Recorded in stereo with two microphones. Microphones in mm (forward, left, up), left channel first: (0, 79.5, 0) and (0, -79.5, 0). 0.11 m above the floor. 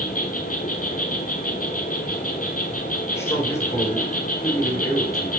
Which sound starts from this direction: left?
An insect, at 0.0 s.